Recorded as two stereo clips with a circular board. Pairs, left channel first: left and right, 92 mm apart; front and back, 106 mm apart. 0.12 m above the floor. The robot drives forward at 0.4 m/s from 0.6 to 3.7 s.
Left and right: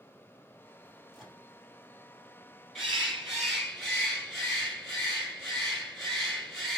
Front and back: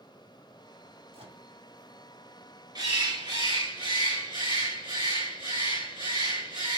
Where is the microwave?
175° right, 2.5 m.